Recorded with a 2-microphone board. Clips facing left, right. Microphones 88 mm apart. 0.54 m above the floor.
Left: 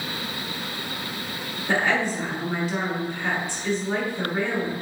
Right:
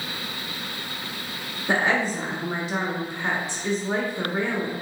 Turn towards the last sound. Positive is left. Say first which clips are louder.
# even
turn(degrees=-15)  # may be behind; listen again after turning